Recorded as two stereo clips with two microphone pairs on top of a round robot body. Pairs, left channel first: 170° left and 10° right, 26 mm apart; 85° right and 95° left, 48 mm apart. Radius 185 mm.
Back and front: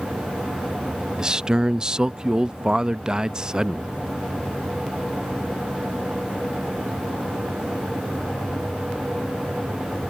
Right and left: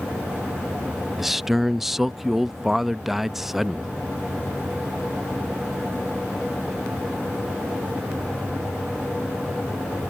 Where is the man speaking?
5° left.